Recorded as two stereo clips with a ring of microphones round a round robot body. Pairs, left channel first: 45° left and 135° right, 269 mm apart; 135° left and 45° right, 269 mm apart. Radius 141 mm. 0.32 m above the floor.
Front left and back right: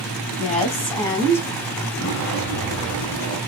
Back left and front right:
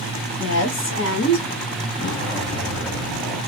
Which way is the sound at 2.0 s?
95° left.